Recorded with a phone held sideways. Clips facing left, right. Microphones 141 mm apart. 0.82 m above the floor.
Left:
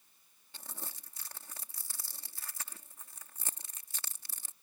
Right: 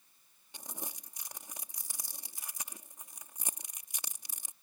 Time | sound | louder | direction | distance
0.5 | crumpling | right 3 dB | 15° right (ahead or behind) | ?